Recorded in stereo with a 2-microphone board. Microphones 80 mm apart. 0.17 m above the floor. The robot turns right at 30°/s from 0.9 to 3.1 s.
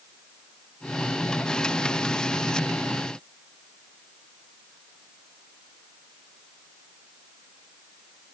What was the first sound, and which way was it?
Only background noise.